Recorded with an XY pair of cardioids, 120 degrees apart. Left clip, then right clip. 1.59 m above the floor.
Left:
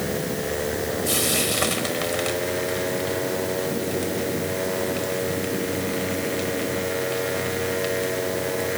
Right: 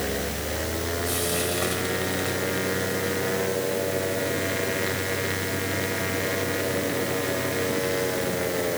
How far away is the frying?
About 5 m.